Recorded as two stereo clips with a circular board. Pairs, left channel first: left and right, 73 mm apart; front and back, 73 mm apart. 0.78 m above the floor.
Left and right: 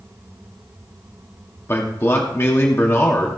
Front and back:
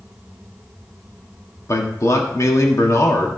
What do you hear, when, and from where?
1.7 s a man speaking: 40° left, 1.7 m